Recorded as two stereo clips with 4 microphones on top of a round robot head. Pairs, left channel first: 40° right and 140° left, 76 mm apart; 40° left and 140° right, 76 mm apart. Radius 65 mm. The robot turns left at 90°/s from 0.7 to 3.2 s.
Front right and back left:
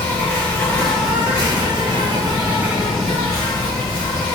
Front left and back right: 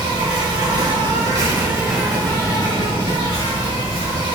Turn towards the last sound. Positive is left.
turn(degrees=20)